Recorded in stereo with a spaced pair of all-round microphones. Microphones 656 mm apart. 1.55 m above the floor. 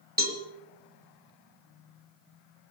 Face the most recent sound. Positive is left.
turn(degrees=-15)  # may be behind; listen again after turning